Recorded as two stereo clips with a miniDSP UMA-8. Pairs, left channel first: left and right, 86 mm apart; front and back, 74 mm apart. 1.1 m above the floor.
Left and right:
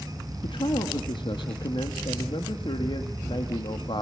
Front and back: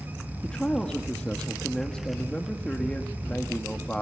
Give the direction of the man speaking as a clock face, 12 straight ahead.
9 o'clock.